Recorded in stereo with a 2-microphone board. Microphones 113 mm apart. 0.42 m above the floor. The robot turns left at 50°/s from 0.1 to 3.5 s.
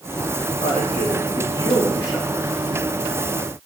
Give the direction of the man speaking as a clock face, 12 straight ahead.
9 o'clock.